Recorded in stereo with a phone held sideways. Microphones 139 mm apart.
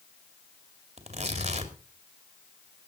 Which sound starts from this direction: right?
Tearing paper, at 1.0 s.